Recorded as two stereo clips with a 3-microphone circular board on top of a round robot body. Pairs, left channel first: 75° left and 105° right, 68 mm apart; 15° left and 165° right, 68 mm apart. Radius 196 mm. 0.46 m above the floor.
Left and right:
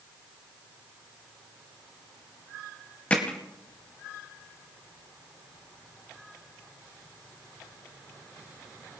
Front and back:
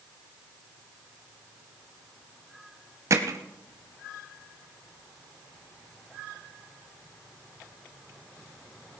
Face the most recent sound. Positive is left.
turn(degrees=150)